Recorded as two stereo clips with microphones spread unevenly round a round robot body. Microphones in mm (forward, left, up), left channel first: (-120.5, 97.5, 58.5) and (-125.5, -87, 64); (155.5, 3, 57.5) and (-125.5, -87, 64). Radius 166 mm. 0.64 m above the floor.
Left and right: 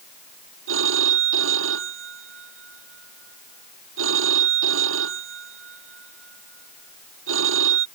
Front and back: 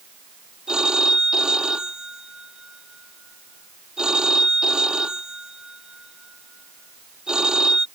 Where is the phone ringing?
75° right.